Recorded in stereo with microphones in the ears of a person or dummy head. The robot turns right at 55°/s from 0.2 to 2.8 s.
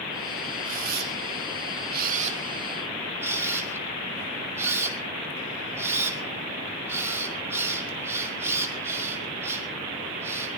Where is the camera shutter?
45° right (ahead or behind), 2 m; by 10.5 s 15° right (ahead or behind), 2 m.